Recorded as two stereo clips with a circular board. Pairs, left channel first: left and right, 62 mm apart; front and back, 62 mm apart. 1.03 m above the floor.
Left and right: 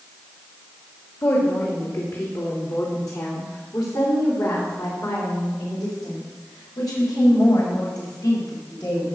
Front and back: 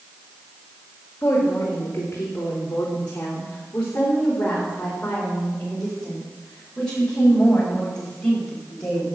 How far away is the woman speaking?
About 2.5 m.